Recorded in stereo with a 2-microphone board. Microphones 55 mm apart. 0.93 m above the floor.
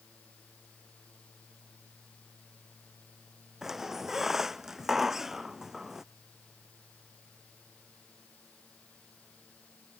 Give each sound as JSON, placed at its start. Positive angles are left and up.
{"t": 3.6, "sound": "a squeak", "side_deg": -5}